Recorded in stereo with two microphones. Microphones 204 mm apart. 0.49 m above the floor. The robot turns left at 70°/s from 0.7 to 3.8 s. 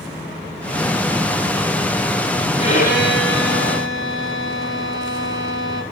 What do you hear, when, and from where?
2.6 s a violin: 155° left, 9 m; by 5.8 s 70° left, 9 m